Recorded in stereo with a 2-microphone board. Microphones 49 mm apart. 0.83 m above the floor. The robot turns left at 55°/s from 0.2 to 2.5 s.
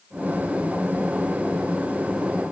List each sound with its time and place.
Only background noise.